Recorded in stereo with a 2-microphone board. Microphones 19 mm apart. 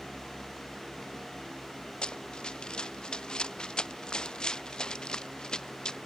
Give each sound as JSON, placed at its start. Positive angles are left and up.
{"t": 2.0, "sound": "running footsteps", "side_deg": 60}